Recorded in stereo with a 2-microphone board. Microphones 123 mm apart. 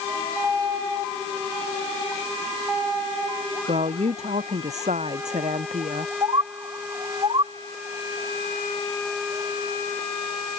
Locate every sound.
3.7 s a woman speaking: 65° right (ahead or behind)
6.2 s a bird: 40° right (ahead or behind)